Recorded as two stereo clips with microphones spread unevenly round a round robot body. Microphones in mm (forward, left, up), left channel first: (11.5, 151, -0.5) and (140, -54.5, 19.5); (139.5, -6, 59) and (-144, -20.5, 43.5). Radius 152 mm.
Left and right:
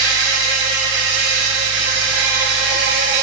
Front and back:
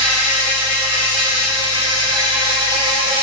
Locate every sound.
0.0 s an insect: 110° right, 2 m